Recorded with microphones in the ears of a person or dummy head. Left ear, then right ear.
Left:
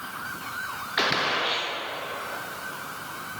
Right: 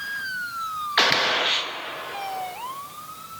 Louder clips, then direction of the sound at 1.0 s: Right 4 dB; 20° right (ahead or behind).